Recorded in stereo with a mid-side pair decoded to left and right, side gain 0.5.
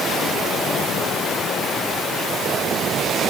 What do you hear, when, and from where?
Only background noise.